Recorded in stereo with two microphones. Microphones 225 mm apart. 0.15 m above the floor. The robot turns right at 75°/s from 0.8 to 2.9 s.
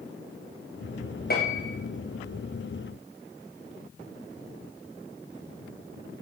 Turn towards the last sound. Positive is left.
turn(degrees=165)